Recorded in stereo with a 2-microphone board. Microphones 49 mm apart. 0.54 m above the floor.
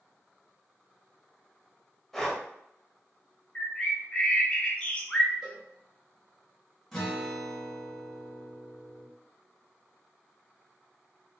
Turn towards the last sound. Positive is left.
turn(degrees=5)  # may be behind; listen again after turning